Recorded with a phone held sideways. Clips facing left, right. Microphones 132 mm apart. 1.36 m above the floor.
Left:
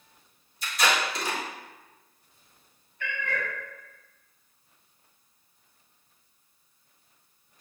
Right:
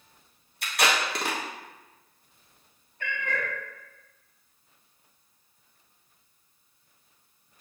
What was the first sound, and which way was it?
Tape being pulled, 65° right (ahead or behind).